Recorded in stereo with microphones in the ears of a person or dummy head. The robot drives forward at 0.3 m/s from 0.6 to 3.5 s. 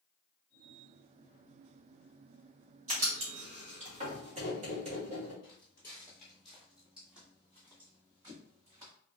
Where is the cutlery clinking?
I don't hear cutlery clinking.